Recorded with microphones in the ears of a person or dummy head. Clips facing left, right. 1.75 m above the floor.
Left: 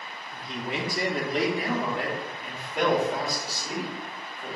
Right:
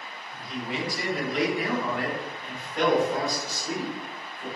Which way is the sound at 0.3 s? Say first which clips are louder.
Even; 60° left (ahead or behind).